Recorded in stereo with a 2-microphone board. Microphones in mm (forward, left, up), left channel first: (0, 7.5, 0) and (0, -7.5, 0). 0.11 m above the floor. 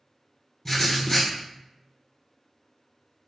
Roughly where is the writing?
Centre.